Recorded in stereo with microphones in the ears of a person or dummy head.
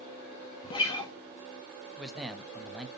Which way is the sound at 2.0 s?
5° right (ahead or behind).